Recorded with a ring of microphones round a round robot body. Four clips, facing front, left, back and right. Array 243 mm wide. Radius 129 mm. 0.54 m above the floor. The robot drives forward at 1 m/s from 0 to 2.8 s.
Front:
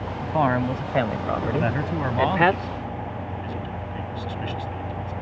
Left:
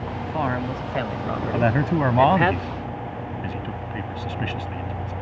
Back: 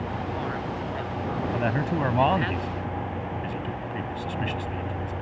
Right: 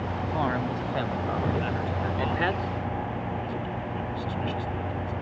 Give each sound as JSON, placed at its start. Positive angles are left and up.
{"t": 0.2, "sound": "a man speaking", "azimuth_deg": 10}
{"t": 1.5, "sound": "a man speaking", "azimuth_deg": 85}